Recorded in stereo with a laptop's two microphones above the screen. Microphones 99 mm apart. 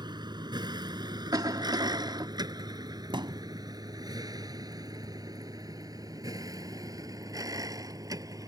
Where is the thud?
50° right (ahead or behind).